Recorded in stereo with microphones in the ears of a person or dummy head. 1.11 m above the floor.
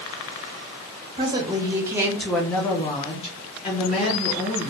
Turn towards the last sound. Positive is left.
turn(degrees=45)  # may be behind; listen again after turning